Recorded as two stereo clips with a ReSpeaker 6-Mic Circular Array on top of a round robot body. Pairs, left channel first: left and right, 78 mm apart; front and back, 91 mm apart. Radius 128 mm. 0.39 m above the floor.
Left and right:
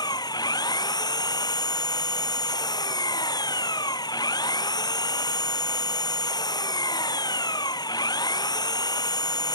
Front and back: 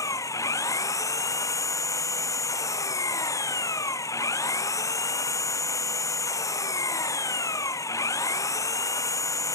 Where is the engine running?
55° left.